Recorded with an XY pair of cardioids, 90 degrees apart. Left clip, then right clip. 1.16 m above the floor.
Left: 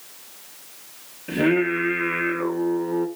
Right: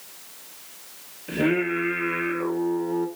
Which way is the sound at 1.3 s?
30° left.